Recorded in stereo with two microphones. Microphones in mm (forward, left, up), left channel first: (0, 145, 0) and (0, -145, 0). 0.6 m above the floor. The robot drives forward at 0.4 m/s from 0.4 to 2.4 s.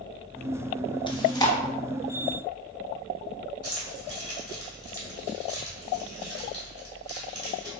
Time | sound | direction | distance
1.1 | chewing | 15° left (ahead or behind) | 0.6 m
3.6 | keys jangling | 55° right (ahead or behind) | 1.6 m